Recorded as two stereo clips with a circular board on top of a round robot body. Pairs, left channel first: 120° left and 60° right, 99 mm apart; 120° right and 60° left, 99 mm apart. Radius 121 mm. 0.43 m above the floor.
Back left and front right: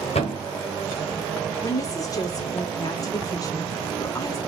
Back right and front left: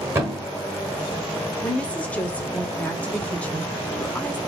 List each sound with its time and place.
0.1 s a thud: 125° left, 2 m
1.6 s a woman speaking: 165° left, 1.4 m